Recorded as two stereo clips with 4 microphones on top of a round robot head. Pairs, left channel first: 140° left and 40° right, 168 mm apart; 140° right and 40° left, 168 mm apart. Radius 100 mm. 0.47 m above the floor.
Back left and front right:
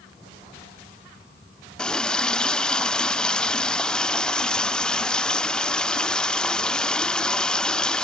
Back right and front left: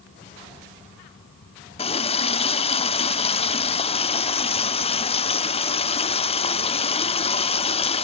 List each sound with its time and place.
1.8 s a running tap: 140° right, 0.7 m